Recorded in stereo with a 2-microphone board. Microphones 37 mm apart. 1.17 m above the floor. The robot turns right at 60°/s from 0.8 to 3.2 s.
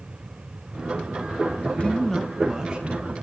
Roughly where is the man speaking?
Behind left.